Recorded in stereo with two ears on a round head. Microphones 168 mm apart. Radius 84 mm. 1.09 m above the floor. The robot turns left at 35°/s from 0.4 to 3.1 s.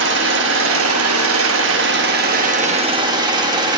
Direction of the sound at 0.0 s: 65° right.